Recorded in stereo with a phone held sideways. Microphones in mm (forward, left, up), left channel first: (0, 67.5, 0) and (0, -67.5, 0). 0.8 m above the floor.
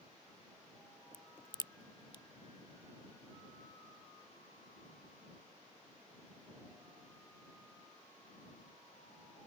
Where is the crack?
35° left (ahead or behind).